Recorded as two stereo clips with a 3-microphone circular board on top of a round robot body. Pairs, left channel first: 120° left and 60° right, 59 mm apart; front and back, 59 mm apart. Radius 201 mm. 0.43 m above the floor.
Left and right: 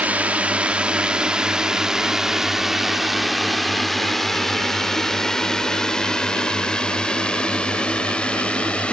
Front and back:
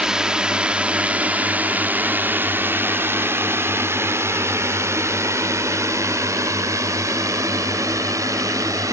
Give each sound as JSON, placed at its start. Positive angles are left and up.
{"t": 0.0, "sound": "a drone", "azimuth_deg": -110}